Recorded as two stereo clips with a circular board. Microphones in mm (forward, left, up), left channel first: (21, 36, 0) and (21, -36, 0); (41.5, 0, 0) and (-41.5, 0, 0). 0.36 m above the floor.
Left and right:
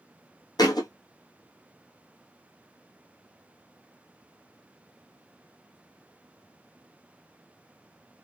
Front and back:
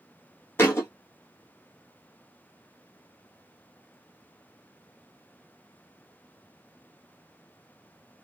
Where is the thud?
65° left, 1.4 m.